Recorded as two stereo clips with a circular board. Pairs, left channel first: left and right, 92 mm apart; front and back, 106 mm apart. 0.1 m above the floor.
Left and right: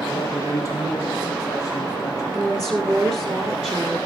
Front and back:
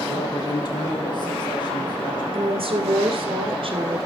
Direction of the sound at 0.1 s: 40° left.